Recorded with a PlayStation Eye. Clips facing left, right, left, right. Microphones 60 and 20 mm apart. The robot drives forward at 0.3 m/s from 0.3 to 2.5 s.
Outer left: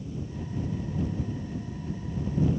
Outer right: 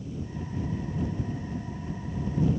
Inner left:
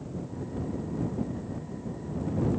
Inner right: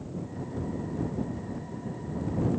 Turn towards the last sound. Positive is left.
No sound to turn to.